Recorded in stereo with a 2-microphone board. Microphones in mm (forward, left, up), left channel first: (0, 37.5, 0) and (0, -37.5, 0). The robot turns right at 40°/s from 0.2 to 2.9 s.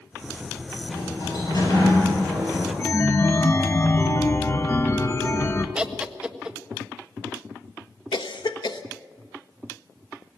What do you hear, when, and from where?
0.8 s a sliding door: 100° left, 9 m; by 2.7 s 175° left, 9 m
2.8 s a chime: 40° left (ahead or behind), 1.3 m; by 5.7 s 35° left (ahead or behind), 1.3 m
5.8 s laughter: 15° right (ahead or behind), 1.6 m
8.1 s a cough: 85° left, 1.3 m